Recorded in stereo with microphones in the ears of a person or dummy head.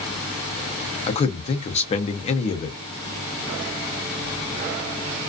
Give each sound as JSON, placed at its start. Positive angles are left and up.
{"t": 1.1, "sound": "a man speaking", "side_deg": 35, "distance_m": 0.6}